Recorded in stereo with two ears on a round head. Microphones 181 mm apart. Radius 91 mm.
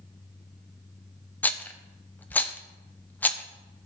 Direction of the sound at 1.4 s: 10° left (ahead or behind).